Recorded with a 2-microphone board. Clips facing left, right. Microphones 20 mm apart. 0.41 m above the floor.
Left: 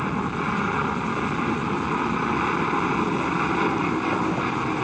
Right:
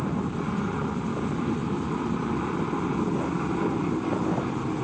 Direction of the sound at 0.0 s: 70° left (ahead or behind).